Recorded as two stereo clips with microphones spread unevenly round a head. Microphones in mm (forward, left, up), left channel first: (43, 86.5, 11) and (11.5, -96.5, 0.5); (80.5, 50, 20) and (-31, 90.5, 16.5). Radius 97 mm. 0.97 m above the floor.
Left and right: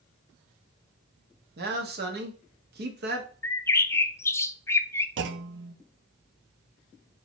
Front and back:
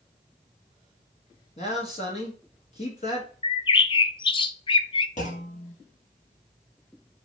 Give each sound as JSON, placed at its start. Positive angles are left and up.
{"t": 1.6, "sound": "a man speaking", "azimuth_deg": -70, "distance_m": 1.7}
{"t": 3.4, "sound": "a bird", "azimuth_deg": 5, "distance_m": 0.5}
{"t": 5.2, "sound": "a clunk", "azimuth_deg": -75, "distance_m": 0.7}